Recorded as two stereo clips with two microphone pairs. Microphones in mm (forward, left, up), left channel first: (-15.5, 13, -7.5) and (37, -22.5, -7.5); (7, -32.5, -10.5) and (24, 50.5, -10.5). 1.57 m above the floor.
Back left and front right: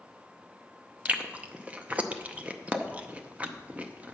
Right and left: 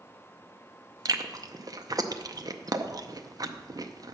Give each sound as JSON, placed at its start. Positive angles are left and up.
{"t": 1.1, "sound": "chewing", "azimuth_deg": 35, "distance_m": 0.6}